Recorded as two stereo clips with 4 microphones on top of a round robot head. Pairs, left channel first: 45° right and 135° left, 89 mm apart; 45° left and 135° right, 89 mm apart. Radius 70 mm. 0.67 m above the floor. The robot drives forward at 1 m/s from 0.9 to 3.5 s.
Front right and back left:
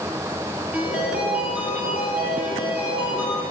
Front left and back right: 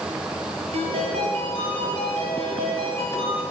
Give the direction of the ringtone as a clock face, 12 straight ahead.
5 o'clock.